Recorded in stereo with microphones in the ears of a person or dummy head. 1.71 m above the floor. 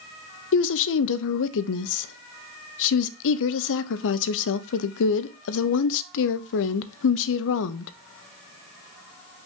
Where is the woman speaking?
65° left (ahead or behind), 0.7 m.